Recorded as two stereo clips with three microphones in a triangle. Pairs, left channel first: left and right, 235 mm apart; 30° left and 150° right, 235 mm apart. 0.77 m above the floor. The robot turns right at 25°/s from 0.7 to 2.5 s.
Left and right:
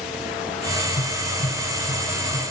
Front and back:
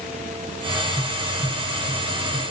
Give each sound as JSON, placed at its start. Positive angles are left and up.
{"t": 1.0, "sound": "tapping", "azimuth_deg": 125, "distance_m": 5.5}